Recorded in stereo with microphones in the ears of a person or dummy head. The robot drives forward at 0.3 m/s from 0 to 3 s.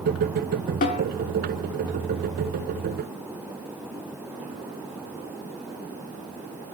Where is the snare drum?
40° left (ahead or behind), 2.5 m.